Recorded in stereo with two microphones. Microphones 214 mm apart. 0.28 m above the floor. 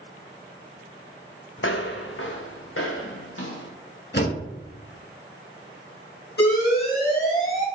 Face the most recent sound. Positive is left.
turn(degrees=45)  # may be behind; listen again after turning